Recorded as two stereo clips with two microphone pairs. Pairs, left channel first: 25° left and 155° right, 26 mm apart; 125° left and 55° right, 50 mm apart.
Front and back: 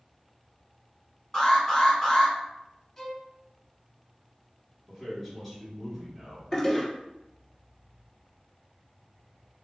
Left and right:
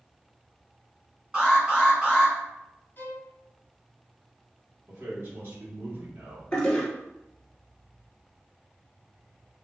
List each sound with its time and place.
1.3 s an alarm: 5° right, 2.0 m
3.0 s a violin: 90° left, 0.7 m
4.9 s a man speaking: 60° right, 1.9 m
6.5 s a toilet flushing: 60° left, 1.1 m